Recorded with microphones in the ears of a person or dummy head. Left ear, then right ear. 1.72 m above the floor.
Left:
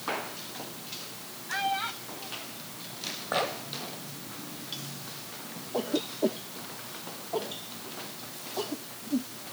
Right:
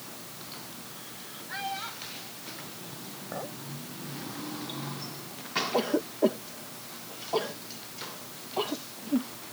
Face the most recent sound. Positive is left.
turn(degrees=-50)  # may be behind; listen again after turning